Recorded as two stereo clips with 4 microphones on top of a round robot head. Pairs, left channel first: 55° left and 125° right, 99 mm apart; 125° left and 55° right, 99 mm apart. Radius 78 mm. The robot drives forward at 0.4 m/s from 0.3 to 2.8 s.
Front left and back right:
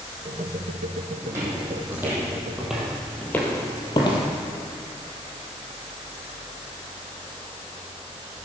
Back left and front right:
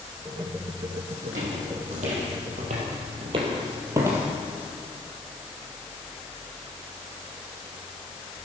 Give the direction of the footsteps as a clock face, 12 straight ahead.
2 o'clock.